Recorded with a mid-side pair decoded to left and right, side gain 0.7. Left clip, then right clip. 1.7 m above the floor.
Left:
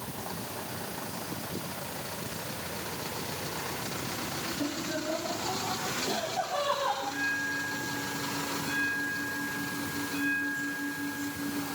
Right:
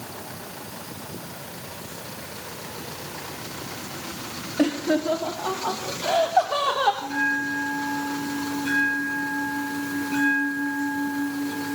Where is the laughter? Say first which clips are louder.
Right 15 dB; 55° right, 2.5 m; by 6.9 s 65° right, 4.5 m.